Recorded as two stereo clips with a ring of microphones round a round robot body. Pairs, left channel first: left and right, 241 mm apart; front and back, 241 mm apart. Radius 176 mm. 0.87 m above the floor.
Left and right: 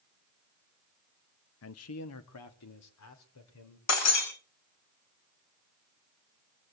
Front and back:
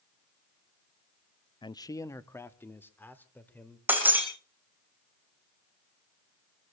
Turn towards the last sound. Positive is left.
turn(degrees=95)